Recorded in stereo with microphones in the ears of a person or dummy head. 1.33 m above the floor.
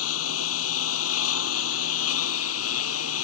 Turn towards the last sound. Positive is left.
turn(degrees=80)